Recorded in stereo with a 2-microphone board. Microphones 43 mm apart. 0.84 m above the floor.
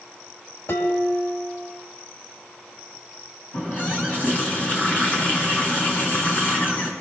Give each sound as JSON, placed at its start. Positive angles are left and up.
{"t": 0.7, "sound": "dishes clattering", "side_deg": 80, "distance_m": 3.5}
{"t": 3.5, "sound": "a running tap", "side_deg": 40, "distance_m": 5.5}